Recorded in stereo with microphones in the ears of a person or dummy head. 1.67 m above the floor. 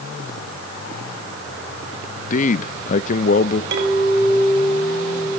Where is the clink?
65° right (ahead or behind), 5 m.